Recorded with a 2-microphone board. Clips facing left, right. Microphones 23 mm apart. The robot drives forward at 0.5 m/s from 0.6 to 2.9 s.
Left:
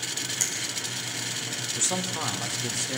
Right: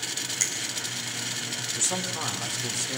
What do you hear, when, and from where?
0.4 s a finger snap: 15° right (ahead or behind), 4.5 m
1.8 s a man speaking: 10° left (ahead or behind), 2 m